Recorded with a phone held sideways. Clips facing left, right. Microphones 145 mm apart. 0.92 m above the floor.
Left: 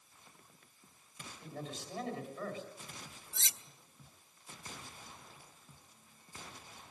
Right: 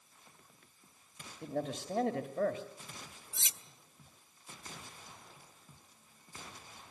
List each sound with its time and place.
1.4 s a man speaking: 60° right (ahead or behind), 1.7 m
3.3 s cutlery clinking: 15° right (ahead or behind), 0.8 m